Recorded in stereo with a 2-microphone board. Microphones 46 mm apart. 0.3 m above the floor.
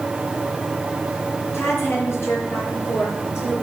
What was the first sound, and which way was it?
A woman speaking, 75° left (ahead or behind).